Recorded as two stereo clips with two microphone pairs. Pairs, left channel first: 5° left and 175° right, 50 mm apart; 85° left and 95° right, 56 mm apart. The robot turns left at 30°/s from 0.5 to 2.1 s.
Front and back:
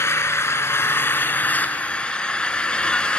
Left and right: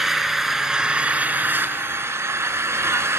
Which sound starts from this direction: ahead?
An engine running, at 0.0 s.